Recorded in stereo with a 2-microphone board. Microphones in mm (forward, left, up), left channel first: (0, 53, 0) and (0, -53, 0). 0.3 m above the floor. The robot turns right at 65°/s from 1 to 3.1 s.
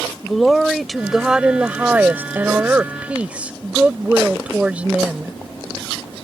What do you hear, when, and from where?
0.2 s a woman speaking: centre (ahead or behind); by 5.4 s 15° right (ahead or behind)